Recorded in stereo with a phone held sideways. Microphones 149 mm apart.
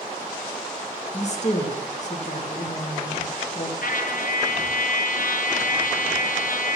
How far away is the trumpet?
About 0.5 m.